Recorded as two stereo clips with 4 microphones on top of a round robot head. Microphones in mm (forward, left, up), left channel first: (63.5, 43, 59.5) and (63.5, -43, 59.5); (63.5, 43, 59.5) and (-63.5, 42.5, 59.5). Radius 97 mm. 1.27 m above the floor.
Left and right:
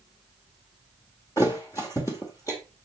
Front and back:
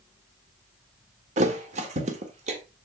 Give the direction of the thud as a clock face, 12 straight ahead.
7 o'clock.